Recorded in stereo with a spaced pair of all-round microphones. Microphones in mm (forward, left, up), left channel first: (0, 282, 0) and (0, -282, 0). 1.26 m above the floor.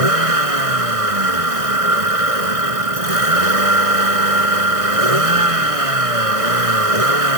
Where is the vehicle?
85° right.